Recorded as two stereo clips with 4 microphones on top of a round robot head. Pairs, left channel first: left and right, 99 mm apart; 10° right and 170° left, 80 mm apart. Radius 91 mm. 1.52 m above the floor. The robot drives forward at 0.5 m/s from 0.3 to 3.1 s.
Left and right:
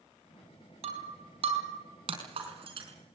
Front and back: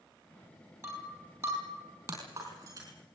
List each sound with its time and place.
0.8 s breaking glass: 120° right, 4.5 m; by 2.9 s 130° right, 5 m